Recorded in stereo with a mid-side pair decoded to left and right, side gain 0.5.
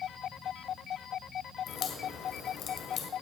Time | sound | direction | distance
1.7 | a crack | 65° left | 2 m